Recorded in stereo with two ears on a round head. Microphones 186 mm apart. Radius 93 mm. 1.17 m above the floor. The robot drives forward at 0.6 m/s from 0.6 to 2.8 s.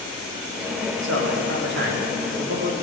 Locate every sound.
1.0 s a man speaking: 65° right (ahead or behind), 2 m; by 2.7 s 45° right (ahead or behind), 2.5 m